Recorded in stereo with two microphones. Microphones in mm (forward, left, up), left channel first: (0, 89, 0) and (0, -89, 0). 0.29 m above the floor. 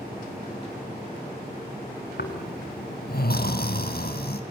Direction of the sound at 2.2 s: 65° left (ahead or behind).